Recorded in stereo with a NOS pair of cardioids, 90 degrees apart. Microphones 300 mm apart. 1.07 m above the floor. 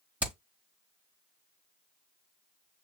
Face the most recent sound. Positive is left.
turn(degrees=-5)